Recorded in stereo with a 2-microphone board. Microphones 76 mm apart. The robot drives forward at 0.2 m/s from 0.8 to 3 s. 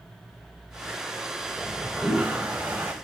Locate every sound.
1.6 s a toilet flushing: 20° right (ahead or behind), 0.7 m; by 2.9 s 25° right (ahead or behind), 0.5 m